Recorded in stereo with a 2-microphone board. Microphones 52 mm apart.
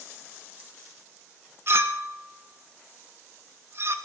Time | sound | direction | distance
1.7 | a clink | 45° right (ahead or behind) | 0.8 m